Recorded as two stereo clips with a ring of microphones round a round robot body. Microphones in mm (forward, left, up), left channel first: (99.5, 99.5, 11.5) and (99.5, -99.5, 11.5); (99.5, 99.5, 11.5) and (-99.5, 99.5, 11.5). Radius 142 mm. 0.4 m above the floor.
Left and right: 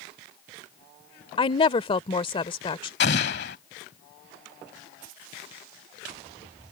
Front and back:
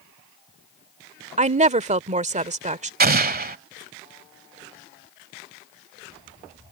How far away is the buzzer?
No buzzer in this recording.